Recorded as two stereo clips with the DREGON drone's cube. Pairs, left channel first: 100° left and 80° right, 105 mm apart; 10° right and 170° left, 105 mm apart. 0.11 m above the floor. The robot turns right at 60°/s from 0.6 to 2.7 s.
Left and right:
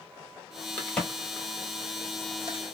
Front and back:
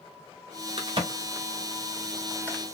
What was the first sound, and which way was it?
A crack, 170° left.